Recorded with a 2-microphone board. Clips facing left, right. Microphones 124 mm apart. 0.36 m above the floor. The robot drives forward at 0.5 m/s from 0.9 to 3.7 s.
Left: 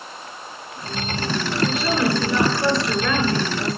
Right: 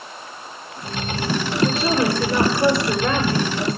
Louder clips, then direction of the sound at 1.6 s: Right 2 dB; 35° right (ahead or behind).